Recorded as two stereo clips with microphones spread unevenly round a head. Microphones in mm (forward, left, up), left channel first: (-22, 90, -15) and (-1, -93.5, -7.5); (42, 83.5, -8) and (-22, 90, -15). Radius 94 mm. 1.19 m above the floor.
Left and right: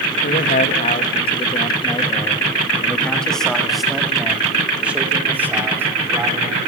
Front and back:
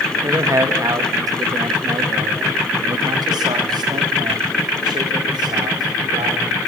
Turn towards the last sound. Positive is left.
turn(degrees=-160)